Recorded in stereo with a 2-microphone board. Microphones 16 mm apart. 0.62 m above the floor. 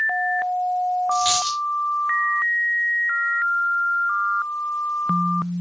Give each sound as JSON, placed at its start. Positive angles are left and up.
{"t": 1.1, "sound": "a dropped coin", "side_deg": -25, "distance_m": 4.5}